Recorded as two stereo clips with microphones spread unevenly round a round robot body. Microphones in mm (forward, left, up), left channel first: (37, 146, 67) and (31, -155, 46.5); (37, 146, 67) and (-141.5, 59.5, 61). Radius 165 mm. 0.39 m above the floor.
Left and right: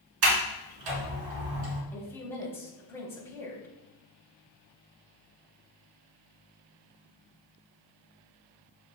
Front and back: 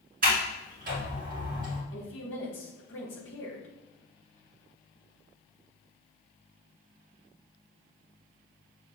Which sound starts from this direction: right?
A sliding door, at 0.2 s.